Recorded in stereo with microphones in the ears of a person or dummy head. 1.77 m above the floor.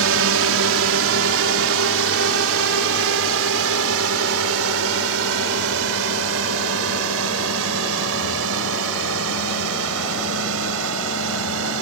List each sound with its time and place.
0.0 s a drone: 80° right; by 11.8 s 85° right